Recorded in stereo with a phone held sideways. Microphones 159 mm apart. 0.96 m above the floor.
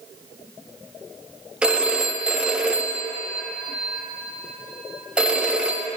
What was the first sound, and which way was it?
A phone ringing, 5° right (ahead or behind).